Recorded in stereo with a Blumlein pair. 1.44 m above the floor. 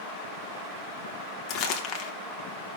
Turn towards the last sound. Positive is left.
turn(degrees=35)